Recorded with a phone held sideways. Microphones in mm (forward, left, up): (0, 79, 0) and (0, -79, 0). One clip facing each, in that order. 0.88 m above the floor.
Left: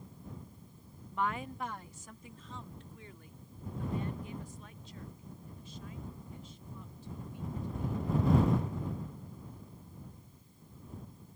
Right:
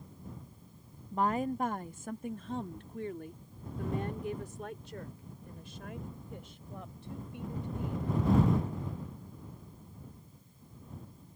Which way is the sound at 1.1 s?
35° right (ahead or behind).